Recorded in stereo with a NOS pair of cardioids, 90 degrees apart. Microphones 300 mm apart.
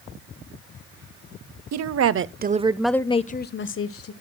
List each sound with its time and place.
1.7 s a woman speaking: 60° right, 1.1 m; by 4.1 s 50° left, 1.4 m